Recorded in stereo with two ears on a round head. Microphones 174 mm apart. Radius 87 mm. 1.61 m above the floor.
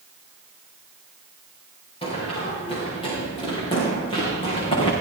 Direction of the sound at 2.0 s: 30° left (ahead or behind).